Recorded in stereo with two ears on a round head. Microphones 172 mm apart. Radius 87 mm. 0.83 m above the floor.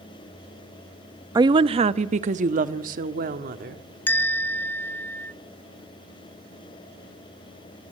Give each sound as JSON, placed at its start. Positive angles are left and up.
{"t": 1.4, "sound": "a woman speaking", "side_deg": -20, "distance_m": 0.6}
{"t": 4.1, "sound": "a bell", "side_deg": 10, "distance_m": 0.9}